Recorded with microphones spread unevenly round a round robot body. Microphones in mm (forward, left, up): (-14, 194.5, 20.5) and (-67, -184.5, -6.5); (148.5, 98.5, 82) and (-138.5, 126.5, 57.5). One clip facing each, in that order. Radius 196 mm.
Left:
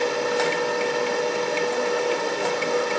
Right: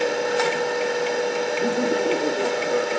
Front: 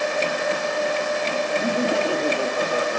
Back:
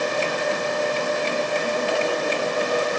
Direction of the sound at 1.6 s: 40° right.